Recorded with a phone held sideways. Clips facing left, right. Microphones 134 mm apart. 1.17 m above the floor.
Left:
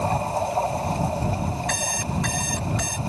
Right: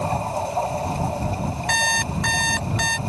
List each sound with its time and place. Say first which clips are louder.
1.7 s an alarm clock: right 3 dB; 80° right